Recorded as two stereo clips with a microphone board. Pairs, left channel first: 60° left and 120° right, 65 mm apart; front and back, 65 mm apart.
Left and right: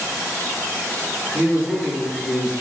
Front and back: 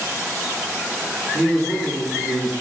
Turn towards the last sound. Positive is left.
turn(degrees=-95)